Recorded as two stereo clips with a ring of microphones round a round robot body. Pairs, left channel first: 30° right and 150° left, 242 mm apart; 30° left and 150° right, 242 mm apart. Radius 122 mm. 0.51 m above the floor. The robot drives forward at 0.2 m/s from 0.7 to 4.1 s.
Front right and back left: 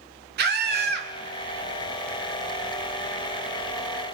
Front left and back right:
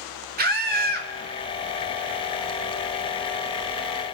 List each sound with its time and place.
0.4 s a scream: 175° left, 1.5 m